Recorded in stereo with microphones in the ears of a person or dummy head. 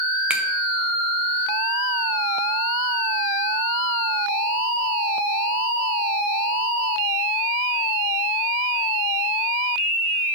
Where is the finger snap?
5° right (ahead or behind), 0.9 m.